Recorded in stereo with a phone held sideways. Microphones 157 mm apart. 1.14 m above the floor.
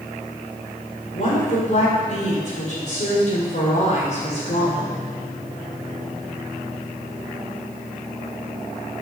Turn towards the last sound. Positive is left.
turn(degrees=50)  # may be behind; listen again after turning